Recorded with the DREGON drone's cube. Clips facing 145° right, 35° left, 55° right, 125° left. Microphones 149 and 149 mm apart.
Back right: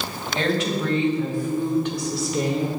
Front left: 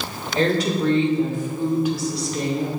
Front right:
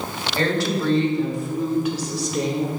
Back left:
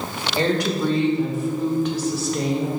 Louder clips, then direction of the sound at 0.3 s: Front left 3 dB, back left 1 dB; 60° left.